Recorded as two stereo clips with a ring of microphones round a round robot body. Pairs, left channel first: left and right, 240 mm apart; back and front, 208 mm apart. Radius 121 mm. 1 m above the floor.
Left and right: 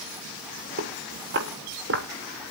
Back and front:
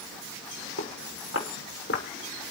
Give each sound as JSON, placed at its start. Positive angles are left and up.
{"t": 0.8, "sound": "footsteps", "azimuth_deg": -140, "distance_m": 6.5}